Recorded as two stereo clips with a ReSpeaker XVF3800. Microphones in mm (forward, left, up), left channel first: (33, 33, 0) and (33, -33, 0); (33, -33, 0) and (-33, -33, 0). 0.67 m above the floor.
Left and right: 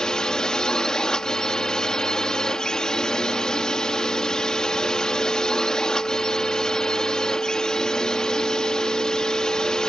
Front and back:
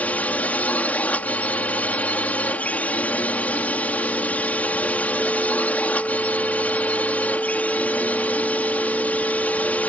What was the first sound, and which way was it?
A drone, 25° left.